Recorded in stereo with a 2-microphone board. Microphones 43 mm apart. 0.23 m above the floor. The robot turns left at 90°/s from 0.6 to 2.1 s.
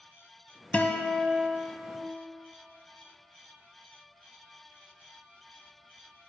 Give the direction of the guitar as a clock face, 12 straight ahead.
8 o'clock.